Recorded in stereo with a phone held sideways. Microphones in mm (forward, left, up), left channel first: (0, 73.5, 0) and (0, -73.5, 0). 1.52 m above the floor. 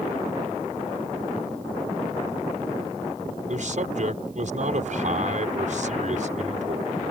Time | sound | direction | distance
3.5 | a man speaking | 60° right (ahead or behind) | ?